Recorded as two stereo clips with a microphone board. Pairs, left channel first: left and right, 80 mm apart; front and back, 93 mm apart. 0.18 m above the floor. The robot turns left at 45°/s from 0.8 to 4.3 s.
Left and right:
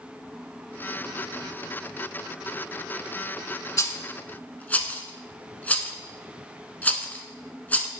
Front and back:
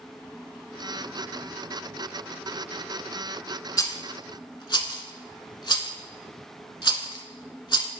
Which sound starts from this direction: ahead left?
A rattle, at 3.8 s.